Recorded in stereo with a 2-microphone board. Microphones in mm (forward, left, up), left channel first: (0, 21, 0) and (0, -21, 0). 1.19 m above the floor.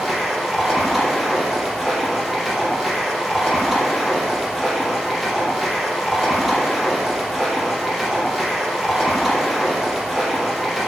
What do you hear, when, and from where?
0.0 s running water: 5° right (ahead or behind), 3.5 m